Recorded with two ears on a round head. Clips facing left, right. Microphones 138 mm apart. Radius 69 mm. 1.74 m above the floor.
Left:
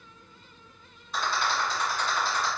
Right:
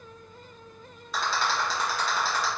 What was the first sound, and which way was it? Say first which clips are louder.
A rattle: right 1 dB; 65° right (ahead or behind).